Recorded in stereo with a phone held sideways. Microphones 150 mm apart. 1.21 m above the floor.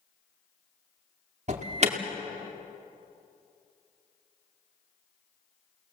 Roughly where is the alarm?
Right.